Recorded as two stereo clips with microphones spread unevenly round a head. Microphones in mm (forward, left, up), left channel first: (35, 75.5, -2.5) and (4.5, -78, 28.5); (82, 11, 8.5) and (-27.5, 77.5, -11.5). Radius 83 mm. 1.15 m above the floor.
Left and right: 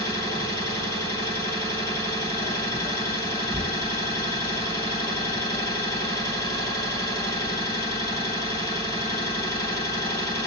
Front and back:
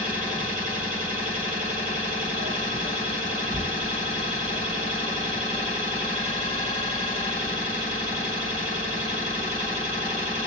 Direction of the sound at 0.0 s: 160° right.